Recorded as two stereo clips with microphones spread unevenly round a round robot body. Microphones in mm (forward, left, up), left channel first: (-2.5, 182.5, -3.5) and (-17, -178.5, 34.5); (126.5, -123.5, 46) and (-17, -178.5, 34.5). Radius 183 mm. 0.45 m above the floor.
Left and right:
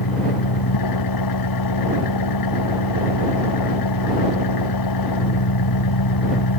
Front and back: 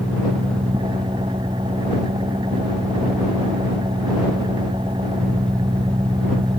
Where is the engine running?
125° left.